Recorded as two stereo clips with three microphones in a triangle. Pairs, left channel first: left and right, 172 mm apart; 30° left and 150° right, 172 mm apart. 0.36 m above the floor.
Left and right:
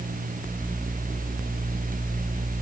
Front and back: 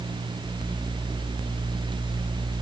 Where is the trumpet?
I don't hear a trumpet.